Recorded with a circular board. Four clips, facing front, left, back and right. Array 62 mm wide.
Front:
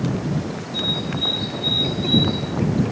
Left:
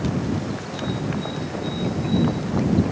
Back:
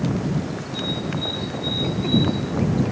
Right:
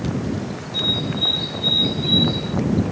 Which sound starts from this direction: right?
A bird, at 0.7 s.